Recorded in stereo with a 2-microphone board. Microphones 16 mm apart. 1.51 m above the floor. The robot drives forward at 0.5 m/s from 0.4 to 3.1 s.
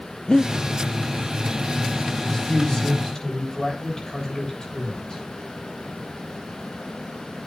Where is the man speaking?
35° left (ahead or behind), 6.5 m; by 5.2 s 30° left (ahead or behind), 6.5 m.